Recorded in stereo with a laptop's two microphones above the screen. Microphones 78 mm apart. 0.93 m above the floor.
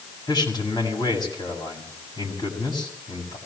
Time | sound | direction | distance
0.3 | a man speaking | 60° left (ahead or behind) | 6.5 m